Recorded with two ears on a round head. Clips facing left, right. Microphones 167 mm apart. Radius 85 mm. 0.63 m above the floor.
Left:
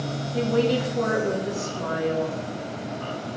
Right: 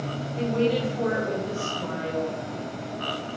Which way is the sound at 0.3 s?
70° left (ahead or behind).